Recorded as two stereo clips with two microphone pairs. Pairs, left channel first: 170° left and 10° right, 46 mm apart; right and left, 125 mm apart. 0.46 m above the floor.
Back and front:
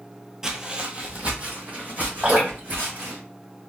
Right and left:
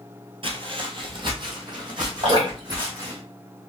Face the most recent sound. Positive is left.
turn(degrees=55)